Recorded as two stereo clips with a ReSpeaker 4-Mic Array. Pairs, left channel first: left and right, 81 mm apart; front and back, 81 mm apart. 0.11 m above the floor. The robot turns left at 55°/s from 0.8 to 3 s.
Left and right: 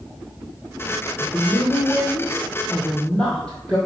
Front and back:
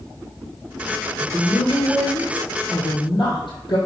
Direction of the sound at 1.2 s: 120° left.